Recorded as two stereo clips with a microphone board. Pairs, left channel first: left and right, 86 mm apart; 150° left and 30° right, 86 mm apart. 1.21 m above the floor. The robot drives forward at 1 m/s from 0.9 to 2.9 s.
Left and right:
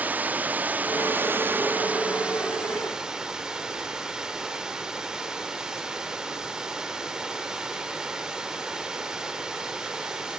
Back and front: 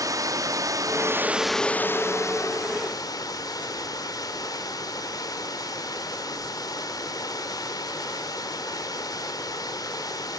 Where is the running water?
30° right, 0.8 m; by 10.4 s 170° right, 1.7 m.